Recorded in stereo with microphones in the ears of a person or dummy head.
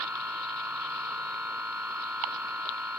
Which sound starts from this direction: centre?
A machine running, at 0.0 s.